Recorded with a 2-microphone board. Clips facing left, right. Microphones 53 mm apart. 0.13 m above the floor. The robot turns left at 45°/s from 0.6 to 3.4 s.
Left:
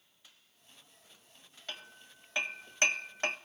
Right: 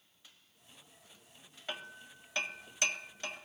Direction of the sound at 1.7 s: 15° right (ahead or behind).